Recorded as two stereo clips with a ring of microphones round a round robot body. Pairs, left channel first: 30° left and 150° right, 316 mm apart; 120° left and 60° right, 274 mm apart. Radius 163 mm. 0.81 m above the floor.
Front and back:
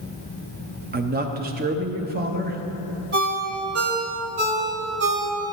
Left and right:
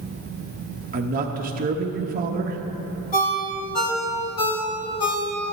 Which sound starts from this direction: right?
A man speaking, at 0.9 s.